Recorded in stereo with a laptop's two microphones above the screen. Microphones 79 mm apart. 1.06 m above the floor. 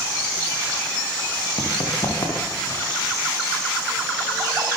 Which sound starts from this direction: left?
Running footsteps, at 1.6 s.